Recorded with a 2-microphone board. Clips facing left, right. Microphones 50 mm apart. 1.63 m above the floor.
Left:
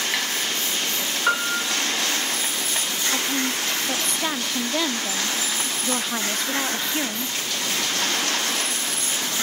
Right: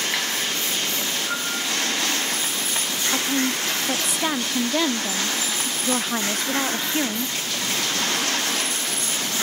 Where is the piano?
65° left (ahead or behind), 7 m.